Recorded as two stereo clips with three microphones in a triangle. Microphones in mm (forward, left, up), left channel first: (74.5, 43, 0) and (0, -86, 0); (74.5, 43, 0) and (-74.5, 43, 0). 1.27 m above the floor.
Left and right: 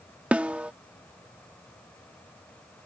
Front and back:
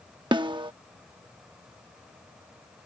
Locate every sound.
0.3 s a snare drum: 170° left